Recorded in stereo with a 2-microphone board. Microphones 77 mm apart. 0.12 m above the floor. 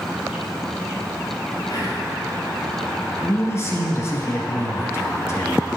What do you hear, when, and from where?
1.7 s whispering: 55° left (ahead or behind), 2.5 m
3.2 s a man speaking: 35° left (ahead or behind), 1.3 m